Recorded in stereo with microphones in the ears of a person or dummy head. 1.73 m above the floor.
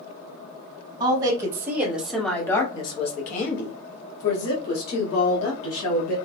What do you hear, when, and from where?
1.0 s a woman speaking: 25° right (ahead or behind), 1.2 m; by 6.2 s 65° left (ahead or behind), 1.9 m